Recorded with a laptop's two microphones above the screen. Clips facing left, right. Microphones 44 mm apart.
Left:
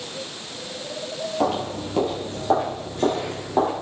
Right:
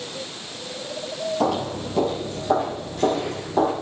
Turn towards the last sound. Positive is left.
turn(degrees=30)  # may be behind; listen again after turning